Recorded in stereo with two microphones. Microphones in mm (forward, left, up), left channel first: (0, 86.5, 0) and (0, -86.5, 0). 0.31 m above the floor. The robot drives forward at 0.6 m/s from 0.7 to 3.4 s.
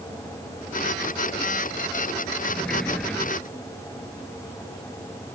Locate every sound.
2.5 s a sliding door: 5° left (ahead or behind)